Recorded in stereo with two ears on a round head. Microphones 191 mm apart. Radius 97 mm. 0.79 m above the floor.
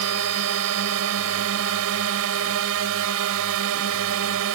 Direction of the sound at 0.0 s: 75° right (ahead or behind).